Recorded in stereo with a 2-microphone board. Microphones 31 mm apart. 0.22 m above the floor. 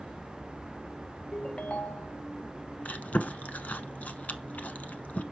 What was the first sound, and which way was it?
A ringtone, 35° left (ahead or behind).